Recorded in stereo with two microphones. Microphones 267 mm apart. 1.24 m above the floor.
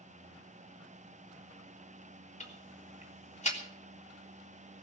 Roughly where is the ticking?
Left.